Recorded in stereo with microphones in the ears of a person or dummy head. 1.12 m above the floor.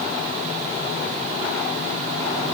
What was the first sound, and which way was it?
Only background noise.